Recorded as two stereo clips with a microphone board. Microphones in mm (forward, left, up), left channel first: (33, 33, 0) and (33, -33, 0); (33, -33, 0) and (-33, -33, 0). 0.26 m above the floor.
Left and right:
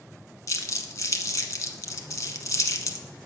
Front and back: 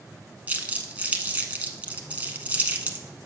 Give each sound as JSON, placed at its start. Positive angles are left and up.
{"t": 0.5, "sound": "crumpling", "azimuth_deg": 115, "distance_m": 0.9}